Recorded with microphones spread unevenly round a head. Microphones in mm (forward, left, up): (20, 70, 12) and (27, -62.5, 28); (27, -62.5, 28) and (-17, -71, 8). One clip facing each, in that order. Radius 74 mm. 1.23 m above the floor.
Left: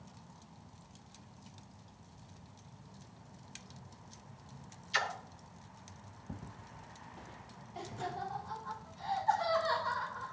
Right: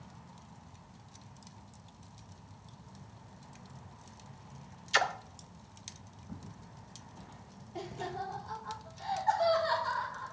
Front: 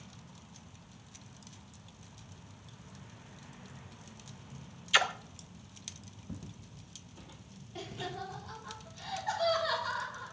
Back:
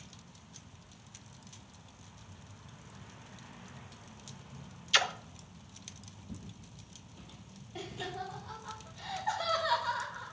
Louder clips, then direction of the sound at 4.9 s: Right 6 dB, front 2 dB; 85° right.